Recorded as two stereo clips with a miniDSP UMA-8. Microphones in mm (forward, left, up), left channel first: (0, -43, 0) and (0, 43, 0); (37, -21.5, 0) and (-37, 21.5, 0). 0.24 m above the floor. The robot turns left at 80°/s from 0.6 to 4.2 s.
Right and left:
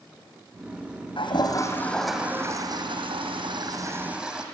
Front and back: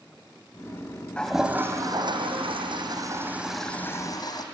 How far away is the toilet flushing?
About 2.5 m.